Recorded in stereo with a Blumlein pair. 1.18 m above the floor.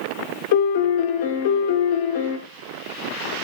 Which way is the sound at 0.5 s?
50° left.